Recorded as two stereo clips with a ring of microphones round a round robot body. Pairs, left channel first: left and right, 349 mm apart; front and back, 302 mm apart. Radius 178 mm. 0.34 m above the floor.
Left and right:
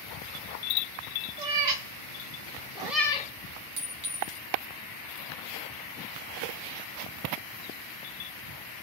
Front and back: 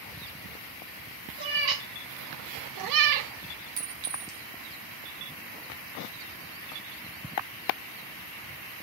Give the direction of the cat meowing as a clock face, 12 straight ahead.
4 o'clock.